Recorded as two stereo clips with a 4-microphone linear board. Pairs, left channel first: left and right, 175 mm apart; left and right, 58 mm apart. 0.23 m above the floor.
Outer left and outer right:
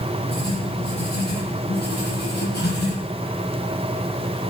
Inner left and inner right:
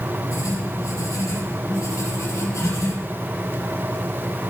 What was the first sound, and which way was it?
Writing, 70° left (ahead or behind).